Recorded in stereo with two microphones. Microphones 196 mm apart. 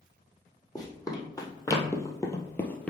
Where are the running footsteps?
20° left (ahead or behind), 2.0 m; by 2.9 s 5° left (ahead or behind), 1.0 m.